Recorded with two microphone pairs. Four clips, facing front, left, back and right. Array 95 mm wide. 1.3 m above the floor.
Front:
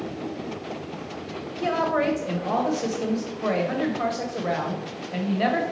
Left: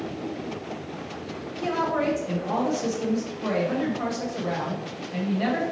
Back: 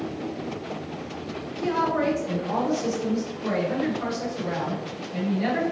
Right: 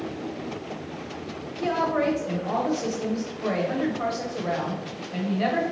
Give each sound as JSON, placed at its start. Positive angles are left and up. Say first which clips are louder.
{"t": 1.6, "sound": "a woman speaking", "louder": "right 1 dB, front 1 dB", "azimuth_deg": -10, "distance_m": 1.1}